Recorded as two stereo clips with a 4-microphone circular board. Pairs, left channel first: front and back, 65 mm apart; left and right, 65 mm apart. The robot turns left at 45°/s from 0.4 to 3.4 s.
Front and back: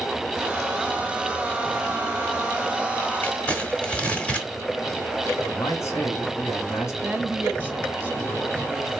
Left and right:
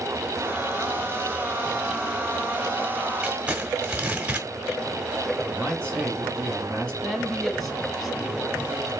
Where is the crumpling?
40° right, 1.4 m; by 4.5 s 45° right, 1.4 m.